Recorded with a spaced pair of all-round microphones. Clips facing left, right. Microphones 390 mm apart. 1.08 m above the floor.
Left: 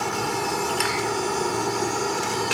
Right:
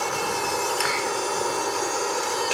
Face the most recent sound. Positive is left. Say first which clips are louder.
# left 1 dB
turn(degrees=45)  # may be behind; listen again after turning